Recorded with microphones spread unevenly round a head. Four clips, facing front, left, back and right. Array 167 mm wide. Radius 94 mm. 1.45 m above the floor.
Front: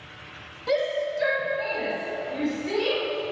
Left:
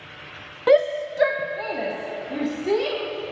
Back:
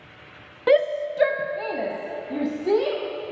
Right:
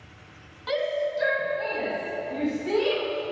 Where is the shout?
130° left, 0.6 m; by 3.0 s 155° left, 2.5 m.